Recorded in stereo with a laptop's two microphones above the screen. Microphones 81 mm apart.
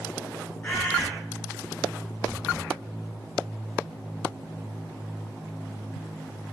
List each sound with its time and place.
0.6 s a bird: 15° left (ahead or behind), 0.6 m